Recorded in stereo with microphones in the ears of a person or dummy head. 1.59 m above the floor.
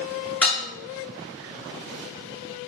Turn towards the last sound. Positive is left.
turn(degrees=5)  # may be behind; listen again after turning